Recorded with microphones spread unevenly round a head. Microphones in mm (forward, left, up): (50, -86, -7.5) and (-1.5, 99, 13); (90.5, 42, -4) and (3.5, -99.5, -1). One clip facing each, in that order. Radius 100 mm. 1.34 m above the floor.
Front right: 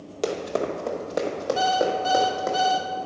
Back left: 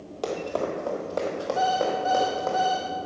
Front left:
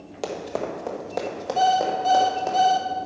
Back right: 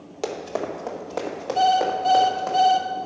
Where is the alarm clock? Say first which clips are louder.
Front right 1 dB, back right 1 dB; 25° right, 1.2 m.